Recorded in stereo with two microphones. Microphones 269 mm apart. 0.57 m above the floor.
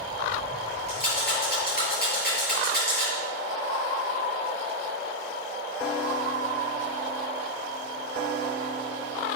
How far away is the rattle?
About 8.5 m.